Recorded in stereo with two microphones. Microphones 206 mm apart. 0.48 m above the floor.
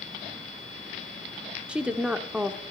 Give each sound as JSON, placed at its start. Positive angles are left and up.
{"t": 1.7, "sound": "a woman speaking", "side_deg": -5, "distance_m": 0.8}